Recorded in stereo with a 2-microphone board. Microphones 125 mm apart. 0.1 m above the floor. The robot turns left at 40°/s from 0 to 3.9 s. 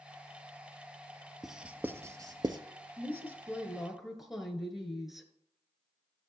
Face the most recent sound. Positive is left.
turn(degrees=0)  # may be behind; listen again after turning